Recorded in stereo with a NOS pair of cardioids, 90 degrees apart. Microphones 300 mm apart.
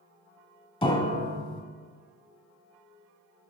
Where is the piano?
20° left, 1.1 m.